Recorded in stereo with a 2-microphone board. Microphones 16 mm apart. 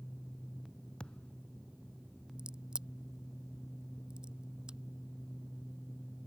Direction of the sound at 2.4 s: 65° right (ahead or behind).